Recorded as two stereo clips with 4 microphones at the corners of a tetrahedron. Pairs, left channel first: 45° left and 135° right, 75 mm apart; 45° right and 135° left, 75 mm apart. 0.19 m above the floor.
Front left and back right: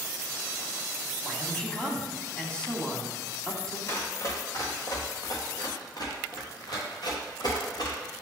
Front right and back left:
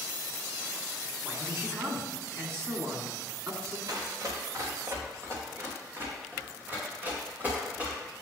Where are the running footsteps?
100° left, 2.5 m; by 8.0 s 65° left, 5 m.